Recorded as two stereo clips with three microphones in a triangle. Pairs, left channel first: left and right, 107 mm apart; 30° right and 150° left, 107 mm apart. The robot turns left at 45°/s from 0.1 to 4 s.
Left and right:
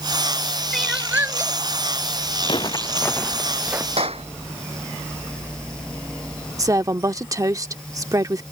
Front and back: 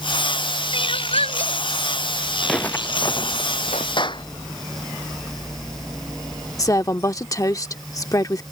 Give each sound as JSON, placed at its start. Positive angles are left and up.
{"t": 0.7, "sound": "crying", "azimuth_deg": 5}
{"t": 2.4, "sound": "footsteps", "azimuth_deg": 60}
{"t": 4.0, "sound": "a clap", "azimuth_deg": -70}
{"t": 6.6, "sound": "a woman speaking", "azimuth_deg": -60}